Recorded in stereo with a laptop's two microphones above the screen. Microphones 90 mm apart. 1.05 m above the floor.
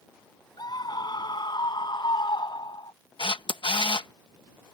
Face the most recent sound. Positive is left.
turn(degrees=65)  # may be behind; listen again after turning